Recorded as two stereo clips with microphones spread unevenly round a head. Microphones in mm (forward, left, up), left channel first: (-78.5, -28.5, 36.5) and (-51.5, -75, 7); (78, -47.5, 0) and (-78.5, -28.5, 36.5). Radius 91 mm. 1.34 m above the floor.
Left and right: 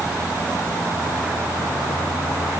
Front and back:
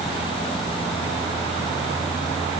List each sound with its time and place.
Only background noise.